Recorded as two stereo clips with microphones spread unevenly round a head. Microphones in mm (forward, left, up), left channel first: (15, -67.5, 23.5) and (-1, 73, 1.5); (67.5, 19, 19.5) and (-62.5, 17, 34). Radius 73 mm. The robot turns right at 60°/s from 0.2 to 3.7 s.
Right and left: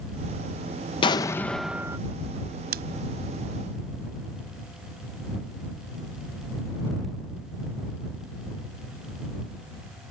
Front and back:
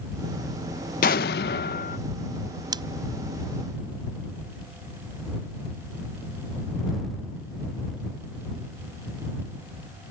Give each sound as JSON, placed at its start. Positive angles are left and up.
{"t": 1.0, "sound": "an explosion", "azimuth_deg": -35}
{"t": 2.7, "sound": "scissors", "azimuth_deg": 120}